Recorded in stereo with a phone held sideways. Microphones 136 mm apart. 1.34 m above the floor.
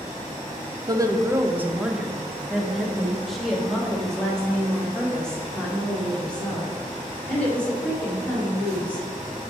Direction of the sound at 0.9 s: 25° right (ahead or behind).